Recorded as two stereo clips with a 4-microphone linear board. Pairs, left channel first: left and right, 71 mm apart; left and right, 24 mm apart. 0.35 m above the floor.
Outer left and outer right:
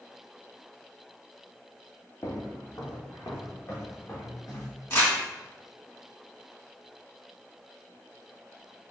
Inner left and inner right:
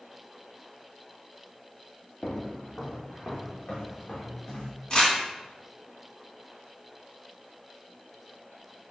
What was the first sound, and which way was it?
Footsteps, 50° left (ahead or behind).